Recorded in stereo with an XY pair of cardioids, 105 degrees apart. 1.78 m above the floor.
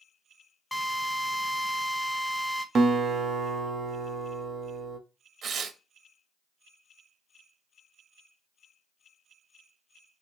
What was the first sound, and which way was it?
A drill, 10° left.